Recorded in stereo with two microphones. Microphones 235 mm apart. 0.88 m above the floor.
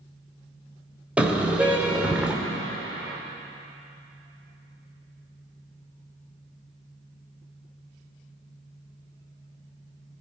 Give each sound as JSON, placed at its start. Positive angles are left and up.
{"t": 1.2, "sound": "a car horn", "side_deg": -5, "distance_m": 2.0}